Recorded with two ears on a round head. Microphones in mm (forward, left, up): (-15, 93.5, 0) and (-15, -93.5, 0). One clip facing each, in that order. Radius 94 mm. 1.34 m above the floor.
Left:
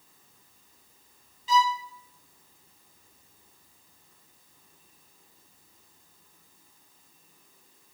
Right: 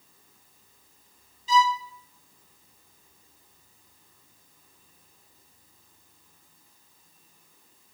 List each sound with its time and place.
1.5 s a violin: 50° left (ahead or behind), 0.9 m